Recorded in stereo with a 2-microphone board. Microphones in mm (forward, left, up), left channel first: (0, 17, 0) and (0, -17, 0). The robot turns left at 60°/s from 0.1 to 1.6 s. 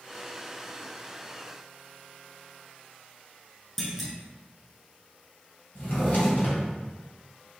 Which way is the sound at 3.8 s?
Centre (ahead or behind).